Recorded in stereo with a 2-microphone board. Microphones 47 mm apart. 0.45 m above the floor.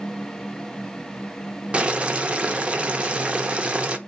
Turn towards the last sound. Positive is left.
turn(degrees=-25)  # may be behind; listen again after turning